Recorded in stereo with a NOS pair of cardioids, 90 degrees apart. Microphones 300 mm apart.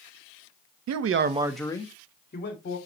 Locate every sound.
0.9 s a man speaking: 65° right, 1.0 m; by 2.8 s 40° left, 2.5 m